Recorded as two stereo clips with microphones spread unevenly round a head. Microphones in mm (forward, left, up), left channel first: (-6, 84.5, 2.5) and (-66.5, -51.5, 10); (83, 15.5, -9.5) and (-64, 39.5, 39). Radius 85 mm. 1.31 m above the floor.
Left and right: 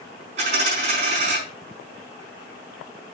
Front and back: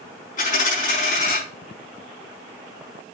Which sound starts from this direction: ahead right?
A dropped coin, at 0.4 s.